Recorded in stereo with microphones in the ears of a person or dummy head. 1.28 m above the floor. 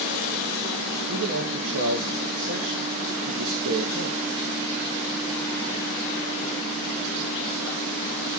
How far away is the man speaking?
About 1.3 m.